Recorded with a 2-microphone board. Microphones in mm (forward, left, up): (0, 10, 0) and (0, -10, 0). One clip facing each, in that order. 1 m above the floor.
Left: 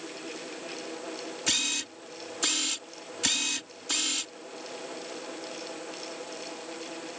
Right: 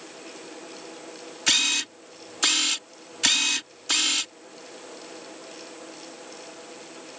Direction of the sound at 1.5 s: 25° right (ahead or behind).